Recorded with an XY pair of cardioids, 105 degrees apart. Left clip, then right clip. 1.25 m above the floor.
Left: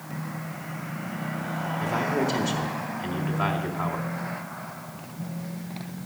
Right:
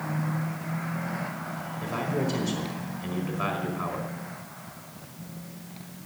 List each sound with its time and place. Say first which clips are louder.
1.8 s a man speaking: left 4 dB; 70° left, 3.5 m